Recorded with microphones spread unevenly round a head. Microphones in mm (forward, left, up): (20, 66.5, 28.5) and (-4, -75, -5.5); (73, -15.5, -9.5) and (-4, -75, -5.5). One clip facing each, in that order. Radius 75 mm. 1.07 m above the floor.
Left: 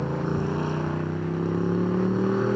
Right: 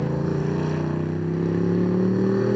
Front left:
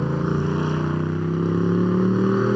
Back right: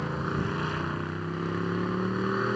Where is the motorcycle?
20° right.